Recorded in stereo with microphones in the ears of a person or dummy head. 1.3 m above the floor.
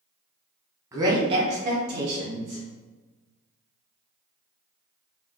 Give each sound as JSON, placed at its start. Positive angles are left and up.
{"t": 0.9, "sound": "a woman speaking", "side_deg": -20, "distance_m": 0.8}